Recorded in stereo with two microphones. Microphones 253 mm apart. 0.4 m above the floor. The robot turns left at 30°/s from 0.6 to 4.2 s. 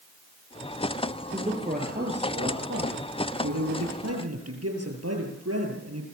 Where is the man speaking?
20° right, 8.5 m; by 6.0 s 105° right, 8.5 m.